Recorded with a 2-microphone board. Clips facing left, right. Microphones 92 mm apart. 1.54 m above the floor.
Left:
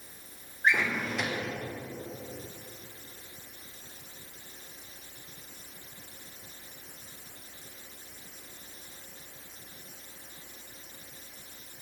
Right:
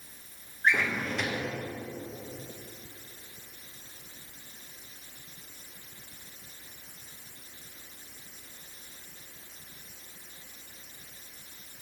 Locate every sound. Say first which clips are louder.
0.6 s a drawer: even; 5° left (ahead or behind), 0.8 m